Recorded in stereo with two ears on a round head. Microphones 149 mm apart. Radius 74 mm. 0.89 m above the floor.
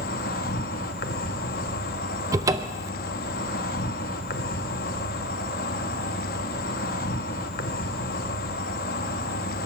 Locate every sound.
0.0 s an insect: 65° left (ahead or behind), 0.8 m
2.3 s a cupboard door: 20° right (ahead or behind), 0.5 m